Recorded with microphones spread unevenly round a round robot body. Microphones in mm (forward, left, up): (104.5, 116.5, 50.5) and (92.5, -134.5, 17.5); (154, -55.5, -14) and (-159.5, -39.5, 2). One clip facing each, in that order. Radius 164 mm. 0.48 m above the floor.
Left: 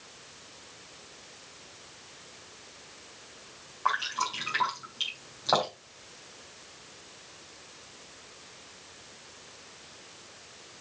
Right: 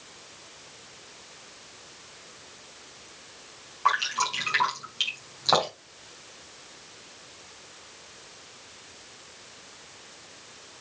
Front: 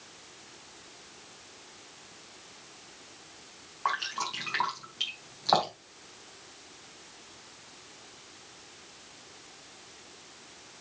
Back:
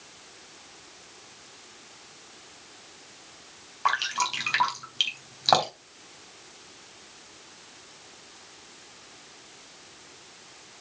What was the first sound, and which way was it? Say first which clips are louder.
Dripping: right 4 dB, back 4 dB; 155° right.